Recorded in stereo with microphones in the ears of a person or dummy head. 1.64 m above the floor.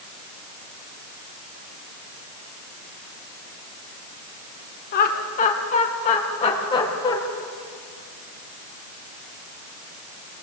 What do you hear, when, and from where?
4.9 s laughter: 45° left (ahead or behind), 2.5 m; by 7.2 s 20° left (ahead or behind), 3.5 m